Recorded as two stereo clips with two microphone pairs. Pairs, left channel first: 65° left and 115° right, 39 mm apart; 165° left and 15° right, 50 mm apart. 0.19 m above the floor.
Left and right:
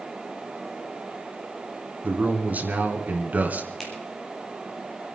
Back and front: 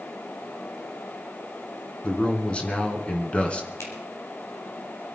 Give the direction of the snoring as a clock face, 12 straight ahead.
I don't hear snoring.